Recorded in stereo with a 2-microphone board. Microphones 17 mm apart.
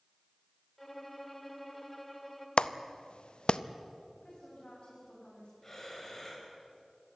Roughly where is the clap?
Left.